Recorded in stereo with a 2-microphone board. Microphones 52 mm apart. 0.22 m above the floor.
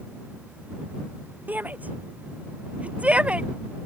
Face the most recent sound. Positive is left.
turn(degrees=-20)  # may be behind; listen again after turning